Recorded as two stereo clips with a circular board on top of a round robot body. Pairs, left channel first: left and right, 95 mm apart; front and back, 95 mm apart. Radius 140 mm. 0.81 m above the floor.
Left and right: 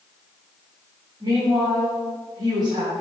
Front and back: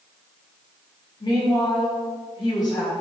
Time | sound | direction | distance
1.2 | a woman speaking | 45° right | 3 m